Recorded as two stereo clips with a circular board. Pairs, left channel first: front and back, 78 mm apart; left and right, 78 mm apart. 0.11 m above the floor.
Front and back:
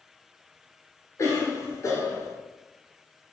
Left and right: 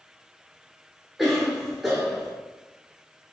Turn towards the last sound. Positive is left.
turn(degrees=-5)